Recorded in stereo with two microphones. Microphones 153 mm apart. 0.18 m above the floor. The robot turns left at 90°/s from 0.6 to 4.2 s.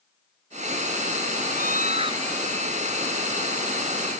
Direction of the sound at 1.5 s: 90° right.